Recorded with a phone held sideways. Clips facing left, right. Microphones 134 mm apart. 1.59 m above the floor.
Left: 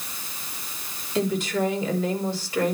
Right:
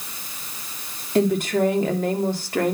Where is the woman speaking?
55° right (ahead or behind), 3.5 m.